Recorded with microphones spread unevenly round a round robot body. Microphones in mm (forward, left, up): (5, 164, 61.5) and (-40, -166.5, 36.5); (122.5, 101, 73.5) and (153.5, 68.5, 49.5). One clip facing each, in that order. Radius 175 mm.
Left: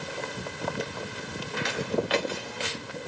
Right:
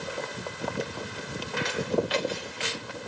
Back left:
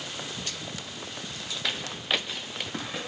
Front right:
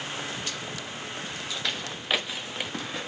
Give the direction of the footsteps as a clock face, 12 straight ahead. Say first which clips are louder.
Right 1 dB, even; 10 o'clock.